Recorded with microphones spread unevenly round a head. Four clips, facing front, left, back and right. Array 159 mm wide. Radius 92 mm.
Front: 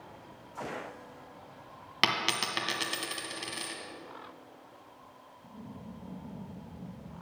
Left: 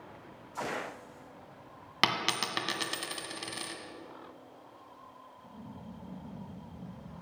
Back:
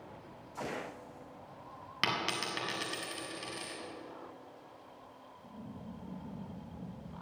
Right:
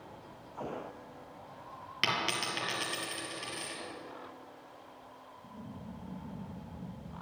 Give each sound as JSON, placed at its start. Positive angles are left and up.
{"t": 2.0, "sound": "a dropped coin", "azimuth_deg": 90, "distance_m": 1.7}